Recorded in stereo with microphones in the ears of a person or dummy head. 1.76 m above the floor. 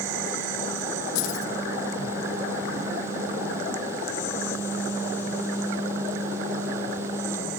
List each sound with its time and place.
1.1 s keys jangling: 45° left (ahead or behind), 1.7 m